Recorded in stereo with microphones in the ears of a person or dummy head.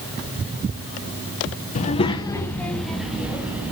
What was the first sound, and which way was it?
A child speaking, 35° left (ahead or behind).